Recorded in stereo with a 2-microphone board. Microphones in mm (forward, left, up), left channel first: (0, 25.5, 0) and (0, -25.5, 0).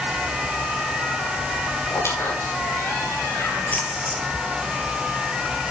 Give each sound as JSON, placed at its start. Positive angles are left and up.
{"t": 1.9, "sound": "a squeak", "side_deg": 60, "distance_m": 9.5}
{"t": 3.7, "sound": "a splash", "side_deg": 30, "distance_m": 3.0}